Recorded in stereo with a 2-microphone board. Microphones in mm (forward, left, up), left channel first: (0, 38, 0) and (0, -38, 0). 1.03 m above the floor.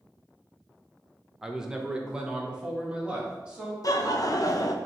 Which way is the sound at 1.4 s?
5° right (ahead or behind).